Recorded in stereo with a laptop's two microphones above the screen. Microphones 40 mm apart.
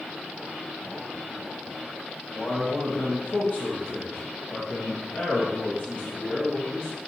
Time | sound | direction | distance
2.3 | a man speaking | 20° left (ahead or behind) | 1.5 m